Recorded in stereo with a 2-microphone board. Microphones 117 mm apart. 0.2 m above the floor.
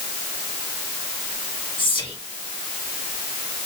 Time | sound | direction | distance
1.8 | whispering | 45° left (ahead or behind) | 1.9 m